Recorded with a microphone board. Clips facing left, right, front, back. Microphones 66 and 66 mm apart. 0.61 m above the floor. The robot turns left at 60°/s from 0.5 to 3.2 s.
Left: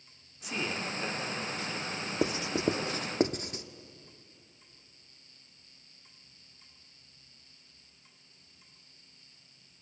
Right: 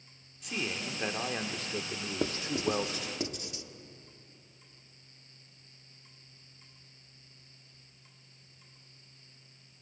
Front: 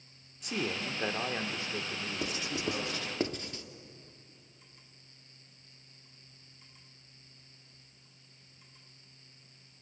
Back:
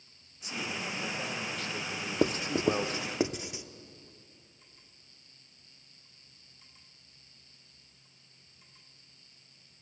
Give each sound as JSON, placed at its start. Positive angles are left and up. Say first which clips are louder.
{"t": 0.4, "sound": "a man speaking", "louder": "left 2 dB, front 2 dB", "azimuth_deg": 5, "distance_m": 1.8}
{"t": 2.2, "sound": "writing", "louder": "left 2 dB, back 10 dB", "azimuth_deg": 165, "distance_m": 0.8}